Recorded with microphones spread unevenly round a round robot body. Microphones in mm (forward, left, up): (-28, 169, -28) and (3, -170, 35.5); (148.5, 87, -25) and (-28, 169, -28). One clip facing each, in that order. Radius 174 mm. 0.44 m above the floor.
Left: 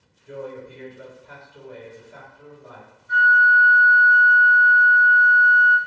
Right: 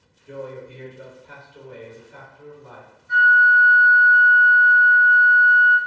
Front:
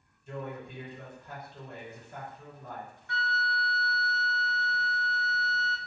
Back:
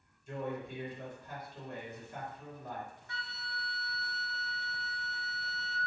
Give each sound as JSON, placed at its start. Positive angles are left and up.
{"t": 0.3, "sound": "a man speaking", "azimuth_deg": -10, "distance_m": 1.6}
{"t": 3.1, "sound": "a flute", "azimuth_deg": 15, "distance_m": 0.5}